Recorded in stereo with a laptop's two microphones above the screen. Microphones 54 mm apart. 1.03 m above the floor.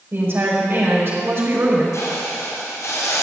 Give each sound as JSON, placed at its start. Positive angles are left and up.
{"t": 0.1, "sound": "a woman speaking", "side_deg": -50, "distance_m": 5.0}
{"t": 1.9, "sound": "a hiss", "side_deg": 80, "distance_m": 4.0}